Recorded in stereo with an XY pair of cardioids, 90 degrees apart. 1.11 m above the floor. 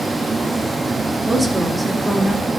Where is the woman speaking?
5° right, 3.5 m.